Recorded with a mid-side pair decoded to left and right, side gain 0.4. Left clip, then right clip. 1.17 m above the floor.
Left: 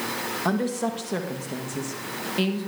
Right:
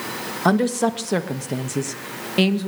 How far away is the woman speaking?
About 1.5 m.